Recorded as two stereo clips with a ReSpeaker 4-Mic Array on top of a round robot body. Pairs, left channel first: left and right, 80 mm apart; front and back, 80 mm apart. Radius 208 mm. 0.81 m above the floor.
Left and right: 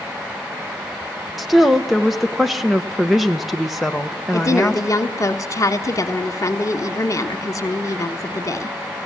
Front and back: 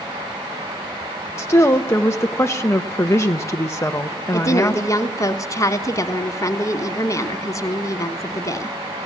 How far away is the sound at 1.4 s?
About 1.0 m.